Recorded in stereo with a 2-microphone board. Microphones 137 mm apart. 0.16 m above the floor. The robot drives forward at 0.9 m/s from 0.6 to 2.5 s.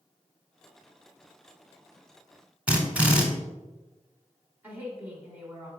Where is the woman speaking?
15° right (ahead or behind), 1.3 m.